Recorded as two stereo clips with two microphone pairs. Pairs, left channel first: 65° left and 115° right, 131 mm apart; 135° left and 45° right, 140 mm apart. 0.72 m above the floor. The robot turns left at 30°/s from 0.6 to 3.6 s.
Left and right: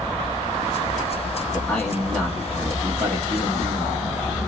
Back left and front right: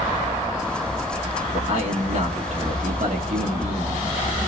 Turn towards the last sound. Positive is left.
turn(degrees=-70)